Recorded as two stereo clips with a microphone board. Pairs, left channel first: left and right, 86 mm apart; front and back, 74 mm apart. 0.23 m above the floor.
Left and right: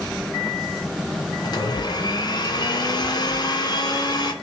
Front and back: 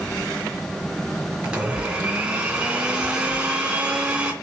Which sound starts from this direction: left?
A blender, at 1.4 s.